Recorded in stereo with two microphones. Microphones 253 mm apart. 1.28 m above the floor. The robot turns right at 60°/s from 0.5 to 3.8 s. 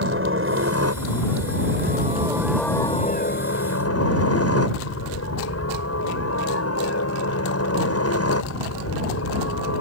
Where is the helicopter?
125° right; by 9.8 s 75° left.